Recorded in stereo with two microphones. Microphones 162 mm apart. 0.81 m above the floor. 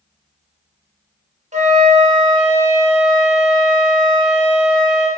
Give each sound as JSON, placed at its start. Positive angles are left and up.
{"t": 1.5, "sound": "a flute", "side_deg": -45, "distance_m": 0.6}